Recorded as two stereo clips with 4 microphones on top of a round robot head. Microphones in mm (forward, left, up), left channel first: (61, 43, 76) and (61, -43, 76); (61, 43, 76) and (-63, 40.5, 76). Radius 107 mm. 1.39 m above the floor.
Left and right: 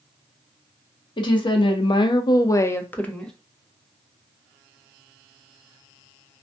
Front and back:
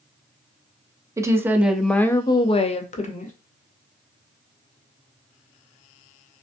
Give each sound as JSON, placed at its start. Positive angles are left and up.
{"t": 1.2, "sound": "a woman speaking", "azimuth_deg": 115, "distance_m": 0.7}